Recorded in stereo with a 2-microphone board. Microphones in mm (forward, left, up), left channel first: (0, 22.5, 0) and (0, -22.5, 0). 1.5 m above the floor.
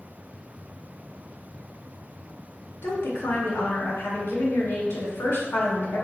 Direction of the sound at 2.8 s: 60° left (ahead or behind).